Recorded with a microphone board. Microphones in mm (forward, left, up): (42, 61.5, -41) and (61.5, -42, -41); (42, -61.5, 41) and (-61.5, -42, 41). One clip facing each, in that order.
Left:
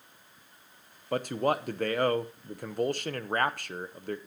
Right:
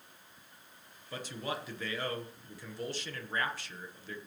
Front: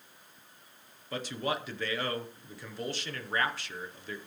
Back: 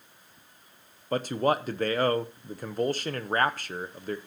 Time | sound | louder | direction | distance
1.1 | a man speaking | left 11 dB, back 8 dB | 130° left | 0.8 m